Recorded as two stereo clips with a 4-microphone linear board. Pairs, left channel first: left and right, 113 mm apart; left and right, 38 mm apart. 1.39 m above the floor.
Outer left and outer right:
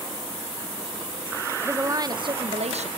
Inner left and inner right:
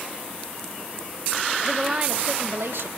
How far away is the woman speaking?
About 1.1 m.